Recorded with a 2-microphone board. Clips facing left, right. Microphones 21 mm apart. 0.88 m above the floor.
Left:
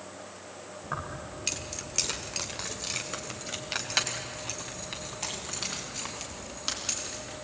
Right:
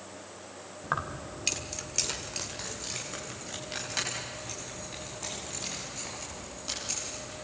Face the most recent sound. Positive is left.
turn(degrees=45)  # may be behind; listen again after turning